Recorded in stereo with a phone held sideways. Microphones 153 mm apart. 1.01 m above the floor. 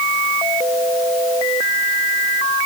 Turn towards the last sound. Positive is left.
No sound to turn to.